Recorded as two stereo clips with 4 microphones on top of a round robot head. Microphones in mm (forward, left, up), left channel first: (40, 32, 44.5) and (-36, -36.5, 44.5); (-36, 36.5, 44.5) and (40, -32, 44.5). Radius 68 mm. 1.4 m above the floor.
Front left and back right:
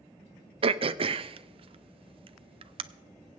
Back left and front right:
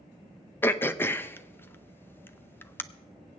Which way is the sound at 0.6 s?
155° right.